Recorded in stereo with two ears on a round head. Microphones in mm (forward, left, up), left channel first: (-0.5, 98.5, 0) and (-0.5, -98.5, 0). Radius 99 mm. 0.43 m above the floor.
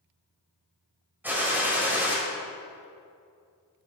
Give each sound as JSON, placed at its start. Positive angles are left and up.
{"t": 1.2, "sound": "a gunshot", "side_deg": -10, "distance_m": 2.0}